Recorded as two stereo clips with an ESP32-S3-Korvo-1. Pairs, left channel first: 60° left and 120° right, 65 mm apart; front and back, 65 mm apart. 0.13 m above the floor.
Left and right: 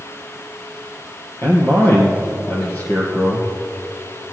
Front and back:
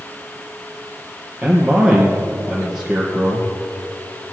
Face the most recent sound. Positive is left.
turn(degrees=105)